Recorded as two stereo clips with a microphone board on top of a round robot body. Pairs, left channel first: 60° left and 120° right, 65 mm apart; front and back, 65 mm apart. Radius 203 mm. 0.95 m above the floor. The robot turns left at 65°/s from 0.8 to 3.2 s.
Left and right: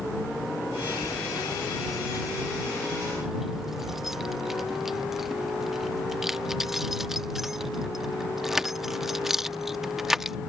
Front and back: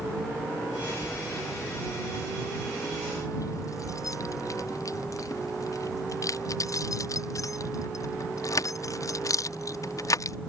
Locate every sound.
1.0 s keys jangling: 105° left; by 10.4 s 35° right